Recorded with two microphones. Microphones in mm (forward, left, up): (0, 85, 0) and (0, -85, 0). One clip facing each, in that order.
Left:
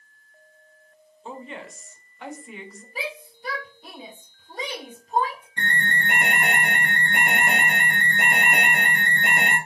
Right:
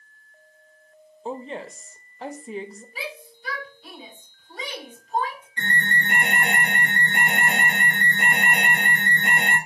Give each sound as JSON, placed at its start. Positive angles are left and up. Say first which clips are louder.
{"t": 1.2, "sound": "a woman speaking", "louder": "right 5 dB", "side_deg": -35, "distance_m": 0.6}
{"t": 3.0, "sound": "a shout", "louder": "left 3 dB", "side_deg": 45, "distance_m": 2.5}
{"t": 5.6, "sound": "an alarm", "louder": "even", "side_deg": 75, "distance_m": 2.5}